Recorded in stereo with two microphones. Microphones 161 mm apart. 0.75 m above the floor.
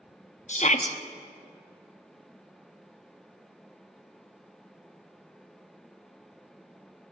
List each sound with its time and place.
0.5 s a shout: 45° left (ahead or behind), 0.8 m